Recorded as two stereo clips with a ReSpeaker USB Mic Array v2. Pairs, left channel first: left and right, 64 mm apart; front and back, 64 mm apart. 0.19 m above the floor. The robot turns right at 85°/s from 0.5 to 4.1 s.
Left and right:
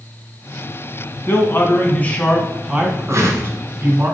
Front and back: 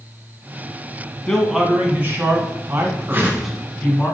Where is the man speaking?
75° left, 1.8 m; by 4.1 s 45° right, 1.8 m.